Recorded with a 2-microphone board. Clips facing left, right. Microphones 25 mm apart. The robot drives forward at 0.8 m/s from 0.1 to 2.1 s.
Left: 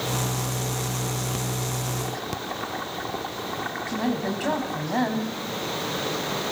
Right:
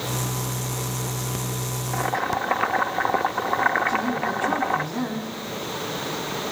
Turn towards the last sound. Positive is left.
turn(degrees=80)